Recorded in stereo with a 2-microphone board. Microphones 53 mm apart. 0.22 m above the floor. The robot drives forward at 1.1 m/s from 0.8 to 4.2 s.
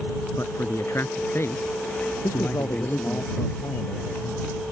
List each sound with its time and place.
0.4 s a man speaking: 55° left (ahead or behind); by 3.2 s 30° left (ahead or behind)
2.2 s a man speaking: 85° left